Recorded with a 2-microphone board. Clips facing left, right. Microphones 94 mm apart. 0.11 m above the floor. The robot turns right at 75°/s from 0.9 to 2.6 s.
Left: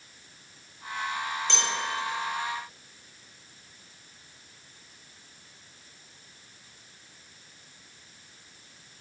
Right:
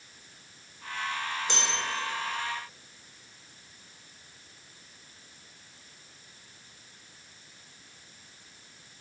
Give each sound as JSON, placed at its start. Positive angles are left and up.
{"t": 1.5, "sound": "a bell", "side_deg": -15, "distance_m": 3.0}